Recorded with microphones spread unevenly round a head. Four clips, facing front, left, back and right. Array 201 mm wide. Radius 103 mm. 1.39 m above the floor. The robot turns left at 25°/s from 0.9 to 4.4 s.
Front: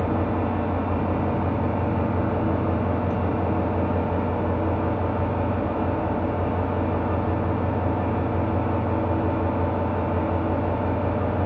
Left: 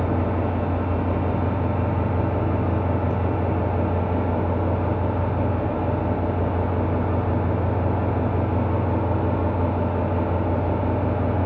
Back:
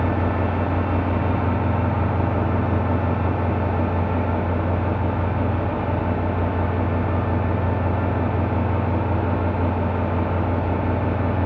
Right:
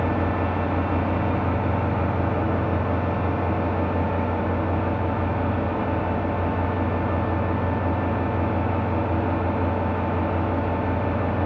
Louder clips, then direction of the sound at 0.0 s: Even, back 1 dB; 155° right.